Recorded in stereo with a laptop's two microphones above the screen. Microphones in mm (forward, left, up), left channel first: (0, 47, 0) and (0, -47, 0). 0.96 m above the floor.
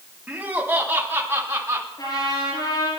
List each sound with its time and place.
0.3 s laughter: 20° right (ahead or behind), 2.5 m; by 1.9 s 30° right (ahead or behind), 3.5 m
2.0 s a trumpet: 50° left (ahead or behind), 8.5 m